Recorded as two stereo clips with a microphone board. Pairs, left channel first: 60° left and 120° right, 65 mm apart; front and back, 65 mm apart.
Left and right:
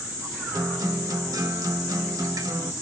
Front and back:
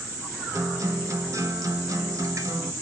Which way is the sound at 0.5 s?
140° right.